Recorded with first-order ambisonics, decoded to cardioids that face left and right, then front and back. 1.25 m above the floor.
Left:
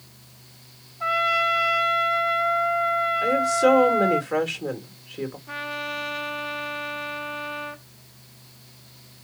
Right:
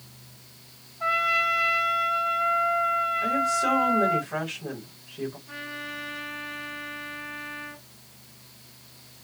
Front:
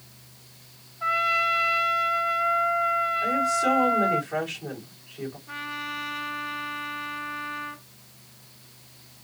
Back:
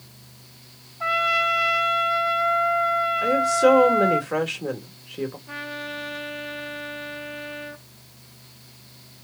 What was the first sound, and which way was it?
A trumpet, 160° left.